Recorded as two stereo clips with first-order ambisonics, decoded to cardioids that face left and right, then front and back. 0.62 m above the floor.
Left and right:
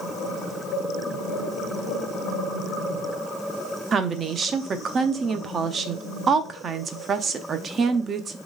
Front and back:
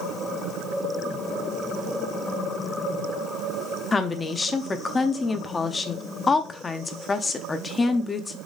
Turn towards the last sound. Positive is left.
turn(degrees=-55)